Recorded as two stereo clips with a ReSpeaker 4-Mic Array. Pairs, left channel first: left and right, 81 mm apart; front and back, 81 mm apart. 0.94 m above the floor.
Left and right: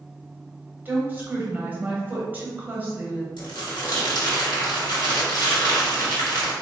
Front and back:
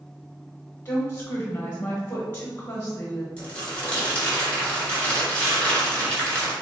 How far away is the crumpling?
About 1.7 m.